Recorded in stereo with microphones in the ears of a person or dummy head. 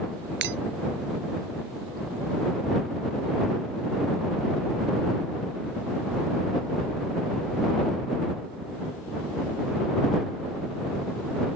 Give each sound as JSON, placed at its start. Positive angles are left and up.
{"t": 0.4, "sound": "breaking glass", "side_deg": -65}